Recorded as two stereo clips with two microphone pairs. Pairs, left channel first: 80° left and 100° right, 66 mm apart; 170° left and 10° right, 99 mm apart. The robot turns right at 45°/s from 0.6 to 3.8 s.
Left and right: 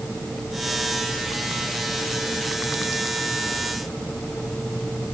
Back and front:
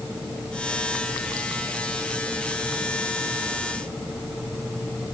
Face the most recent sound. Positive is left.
No sound to turn to.